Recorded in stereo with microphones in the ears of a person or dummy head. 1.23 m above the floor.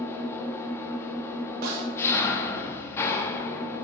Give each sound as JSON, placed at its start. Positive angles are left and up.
{"t": 0.0, "sound": "an engine running", "side_deg": 15, "distance_m": 1.4}
{"t": 1.6, "sound": "a snare drum", "side_deg": -55, "distance_m": 3.5}